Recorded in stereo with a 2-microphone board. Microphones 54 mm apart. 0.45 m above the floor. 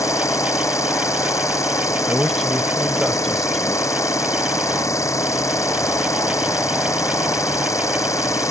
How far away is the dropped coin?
I don't hear a dropped coin.